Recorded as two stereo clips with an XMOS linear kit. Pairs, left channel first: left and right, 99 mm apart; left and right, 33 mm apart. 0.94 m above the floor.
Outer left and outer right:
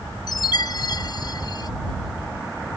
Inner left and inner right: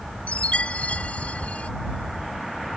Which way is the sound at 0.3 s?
45° left (ahead or behind).